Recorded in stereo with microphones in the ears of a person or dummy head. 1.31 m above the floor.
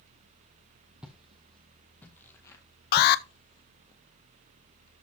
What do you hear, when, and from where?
1.0 s footsteps: 5° right (ahead or behind), 2.5 m; by 3.9 s 45° left (ahead or behind), 2 m
2.9 s an alarm: 55° left (ahead or behind), 0.7 m